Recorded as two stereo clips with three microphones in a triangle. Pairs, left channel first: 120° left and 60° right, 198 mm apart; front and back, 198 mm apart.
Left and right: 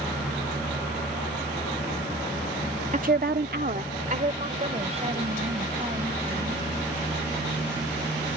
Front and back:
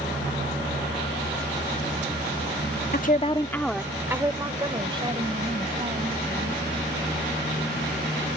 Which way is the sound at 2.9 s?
20° right.